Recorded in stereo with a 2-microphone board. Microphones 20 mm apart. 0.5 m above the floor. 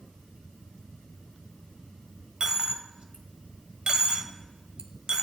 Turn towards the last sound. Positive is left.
turn(degrees=-45)  # may be behind; listen again after turning